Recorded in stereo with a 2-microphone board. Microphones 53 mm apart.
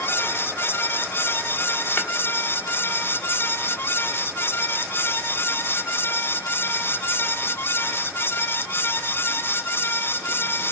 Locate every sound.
2.0 s tapping: 45° left (ahead or behind), 1.5 m